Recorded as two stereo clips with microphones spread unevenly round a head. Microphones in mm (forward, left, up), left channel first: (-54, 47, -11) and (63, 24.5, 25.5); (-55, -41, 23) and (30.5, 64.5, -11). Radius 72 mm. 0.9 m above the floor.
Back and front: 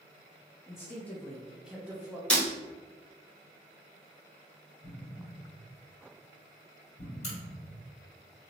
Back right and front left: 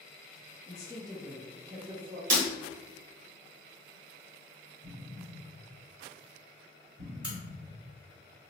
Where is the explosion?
110° left, 2.0 m.